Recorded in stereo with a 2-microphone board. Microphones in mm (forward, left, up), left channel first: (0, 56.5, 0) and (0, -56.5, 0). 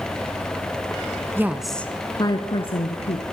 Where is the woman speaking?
20° right (ahead or behind), 1.3 m; by 3.2 s 65° left (ahead or behind), 2.5 m.